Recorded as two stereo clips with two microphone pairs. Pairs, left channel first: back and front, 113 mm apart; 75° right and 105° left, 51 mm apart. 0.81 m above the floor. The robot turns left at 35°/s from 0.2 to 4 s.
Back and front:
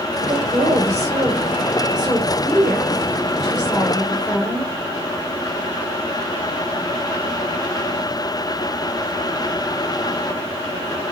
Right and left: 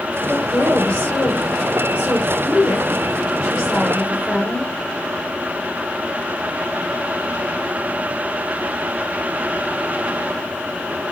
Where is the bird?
I don't hear a bird.